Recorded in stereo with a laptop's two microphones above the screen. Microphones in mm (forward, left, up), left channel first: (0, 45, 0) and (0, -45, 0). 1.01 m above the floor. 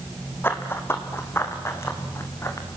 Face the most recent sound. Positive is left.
turn(degrees=30)  # may be behind; listen again after turning